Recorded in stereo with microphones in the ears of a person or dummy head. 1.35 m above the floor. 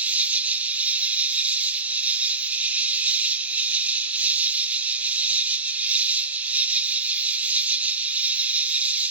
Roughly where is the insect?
Centre.